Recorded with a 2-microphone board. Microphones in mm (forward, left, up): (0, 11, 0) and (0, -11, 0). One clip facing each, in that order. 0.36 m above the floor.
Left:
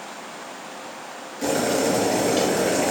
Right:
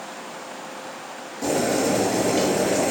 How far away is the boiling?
About 1.6 m.